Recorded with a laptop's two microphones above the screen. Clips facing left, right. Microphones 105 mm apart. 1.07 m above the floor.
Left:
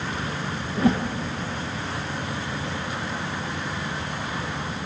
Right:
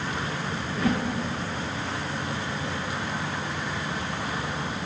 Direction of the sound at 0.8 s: 30° left (ahead or behind).